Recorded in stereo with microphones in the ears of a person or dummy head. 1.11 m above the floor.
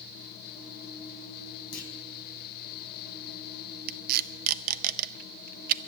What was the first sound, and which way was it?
A clunk, 65° left (ahead or behind).